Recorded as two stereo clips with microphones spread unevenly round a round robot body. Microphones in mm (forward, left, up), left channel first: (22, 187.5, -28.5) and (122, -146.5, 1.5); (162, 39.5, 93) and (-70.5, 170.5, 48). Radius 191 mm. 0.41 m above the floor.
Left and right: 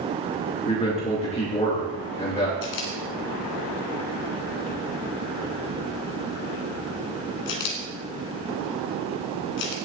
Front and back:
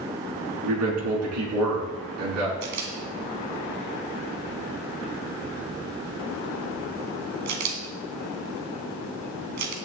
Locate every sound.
0.6 s a man speaking: straight behind, 5 m
2.6 s a camera shutter: 150° left, 2.5 m